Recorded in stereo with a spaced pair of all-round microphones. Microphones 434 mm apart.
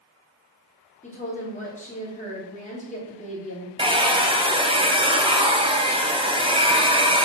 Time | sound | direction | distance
1.0 | a woman speaking | 15° left (ahead or behind) | 2 m
3.8 | a hair dryer | 10° right (ahead or behind) | 0.6 m